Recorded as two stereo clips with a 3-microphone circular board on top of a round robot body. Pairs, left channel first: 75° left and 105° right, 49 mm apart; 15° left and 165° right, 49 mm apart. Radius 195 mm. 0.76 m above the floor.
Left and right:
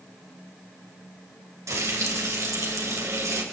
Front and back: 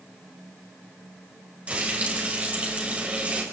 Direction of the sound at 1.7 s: 100° right.